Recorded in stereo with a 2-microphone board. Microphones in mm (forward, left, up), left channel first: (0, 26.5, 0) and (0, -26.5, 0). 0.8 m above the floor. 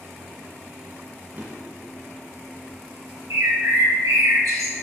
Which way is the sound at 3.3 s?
80° right.